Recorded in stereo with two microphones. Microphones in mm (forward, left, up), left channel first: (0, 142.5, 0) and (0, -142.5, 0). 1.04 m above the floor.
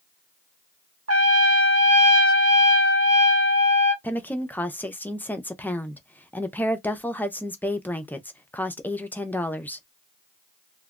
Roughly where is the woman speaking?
Centre.